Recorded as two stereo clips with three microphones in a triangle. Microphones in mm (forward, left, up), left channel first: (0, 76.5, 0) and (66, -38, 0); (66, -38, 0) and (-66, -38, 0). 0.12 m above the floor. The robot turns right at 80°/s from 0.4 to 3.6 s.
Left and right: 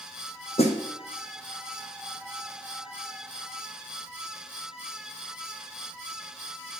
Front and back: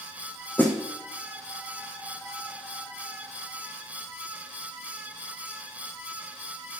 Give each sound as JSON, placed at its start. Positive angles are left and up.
{"t": 0.6, "sound": "a snare drum", "azimuth_deg": 75, "distance_m": 1.1}